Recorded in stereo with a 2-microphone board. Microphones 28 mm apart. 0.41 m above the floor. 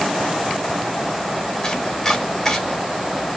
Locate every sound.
1.6 s chopping: 15° left (ahead or behind), 1.1 m